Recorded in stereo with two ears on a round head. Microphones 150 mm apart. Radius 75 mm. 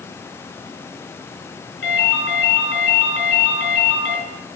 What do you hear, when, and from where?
1.8 s a ringtone: 85° left, 4.5 m